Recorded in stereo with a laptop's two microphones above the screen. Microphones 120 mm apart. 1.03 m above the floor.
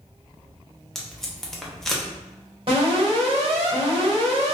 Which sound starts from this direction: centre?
Tape being pulled, at 0.9 s.